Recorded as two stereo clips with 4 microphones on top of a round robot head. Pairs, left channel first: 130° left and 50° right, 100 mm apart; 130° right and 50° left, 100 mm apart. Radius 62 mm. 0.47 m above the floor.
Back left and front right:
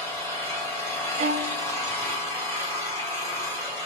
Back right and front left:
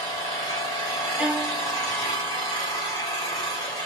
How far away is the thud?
I don't hear a thud.